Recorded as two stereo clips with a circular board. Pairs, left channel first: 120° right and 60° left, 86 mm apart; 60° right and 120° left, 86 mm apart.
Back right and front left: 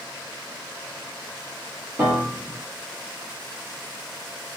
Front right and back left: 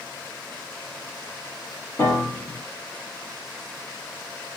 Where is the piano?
10° right, 2 m.